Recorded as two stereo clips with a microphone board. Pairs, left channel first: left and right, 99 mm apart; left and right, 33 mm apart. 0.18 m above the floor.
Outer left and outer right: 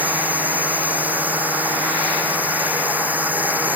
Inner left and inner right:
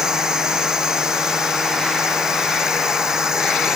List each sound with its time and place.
0.0 s a drone: 15° right (ahead or behind)